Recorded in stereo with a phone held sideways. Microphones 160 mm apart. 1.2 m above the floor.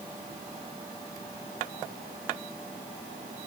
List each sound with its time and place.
Only background noise.